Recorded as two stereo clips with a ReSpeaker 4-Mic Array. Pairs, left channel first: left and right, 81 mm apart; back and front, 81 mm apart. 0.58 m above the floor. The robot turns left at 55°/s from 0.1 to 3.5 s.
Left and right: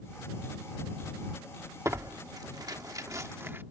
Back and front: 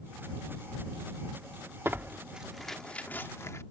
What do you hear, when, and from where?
1.9 s tearing paper: 50° right; by 3.6 s 140° right